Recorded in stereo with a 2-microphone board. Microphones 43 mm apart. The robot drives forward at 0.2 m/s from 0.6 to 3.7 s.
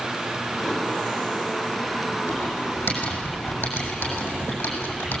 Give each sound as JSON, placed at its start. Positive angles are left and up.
{"t": 2.3, "sound": "typing on a keyboard", "side_deg": 65, "distance_m": 7.5}